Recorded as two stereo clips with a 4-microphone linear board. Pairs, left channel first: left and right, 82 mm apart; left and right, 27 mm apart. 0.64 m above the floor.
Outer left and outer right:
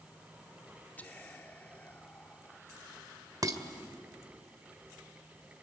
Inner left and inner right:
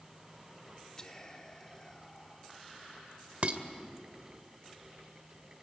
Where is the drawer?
I don't hear a drawer.